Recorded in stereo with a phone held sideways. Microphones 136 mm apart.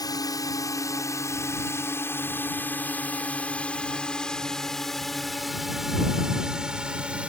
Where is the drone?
30° left (ahead or behind); by 7.3 s 10° right (ahead or behind).